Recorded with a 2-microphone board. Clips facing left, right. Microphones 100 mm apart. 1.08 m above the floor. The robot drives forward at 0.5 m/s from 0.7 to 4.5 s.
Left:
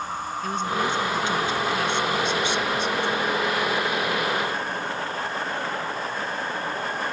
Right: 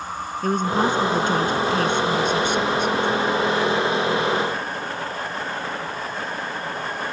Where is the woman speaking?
50° right (ahead or behind); by 3.2 s 55° right (ahead or behind).